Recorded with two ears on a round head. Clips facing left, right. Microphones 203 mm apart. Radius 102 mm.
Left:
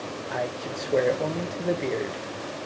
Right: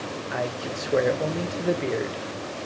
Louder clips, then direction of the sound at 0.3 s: Right 1 dB; 5° right (ahead or behind).